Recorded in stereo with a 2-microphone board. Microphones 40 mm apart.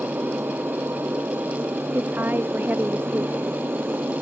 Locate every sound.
0.0 s an aircraft: 70° right (ahead or behind); by 4.2 s 65° right (ahead or behind)
1.9 s a woman speaking: 60° right (ahead or behind)